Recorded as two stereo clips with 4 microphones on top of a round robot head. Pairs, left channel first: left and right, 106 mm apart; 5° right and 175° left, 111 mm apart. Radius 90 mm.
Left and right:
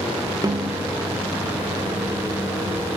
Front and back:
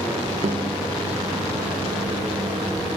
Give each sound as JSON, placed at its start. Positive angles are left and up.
{"t": 0.4, "sound": "a snare drum", "azimuth_deg": -145, "distance_m": 1.2}